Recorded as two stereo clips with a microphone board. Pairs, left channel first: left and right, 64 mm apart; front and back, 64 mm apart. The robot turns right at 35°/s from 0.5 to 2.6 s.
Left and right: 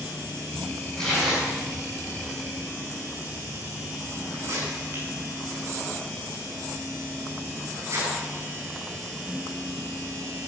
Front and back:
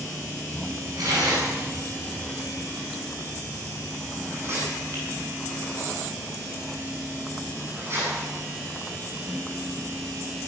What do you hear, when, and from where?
1.0 s tearing paper: 170° left, 8.5 m; by 9.8 s 130° right, 8.5 m